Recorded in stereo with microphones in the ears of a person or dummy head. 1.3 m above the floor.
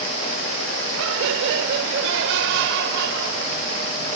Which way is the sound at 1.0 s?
80° right.